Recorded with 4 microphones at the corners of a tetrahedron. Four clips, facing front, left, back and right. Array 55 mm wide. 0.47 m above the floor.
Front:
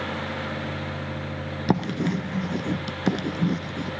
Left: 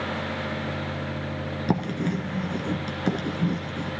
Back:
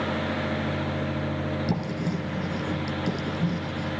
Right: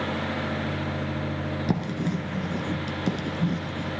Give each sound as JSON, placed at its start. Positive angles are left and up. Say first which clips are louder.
{"t": 1.7, "sound": "writing", "louder": "left 3 dB, front 4 dB", "azimuth_deg": 15, "distance_m": 1.1}